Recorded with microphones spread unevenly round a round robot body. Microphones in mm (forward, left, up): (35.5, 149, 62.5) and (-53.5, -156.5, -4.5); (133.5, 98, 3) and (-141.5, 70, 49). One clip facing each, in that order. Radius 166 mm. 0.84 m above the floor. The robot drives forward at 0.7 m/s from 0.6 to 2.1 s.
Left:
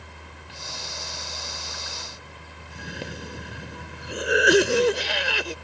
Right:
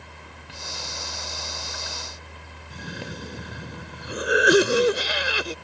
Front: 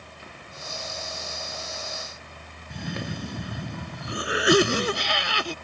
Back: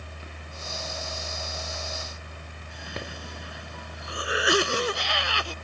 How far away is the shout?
No shout in this recording.